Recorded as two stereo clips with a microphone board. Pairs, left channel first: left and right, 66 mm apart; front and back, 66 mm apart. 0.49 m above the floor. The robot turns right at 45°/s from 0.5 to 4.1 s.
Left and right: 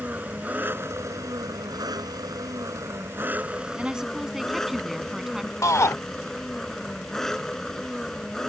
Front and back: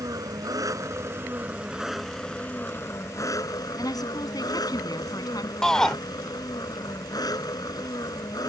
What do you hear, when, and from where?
0.0 s an engine running: 155° right; by 8.5 s 5° left
3.8 s a woman speaking: 20° right; by 5.5 s 5° right
5.6 s a shout: 80° left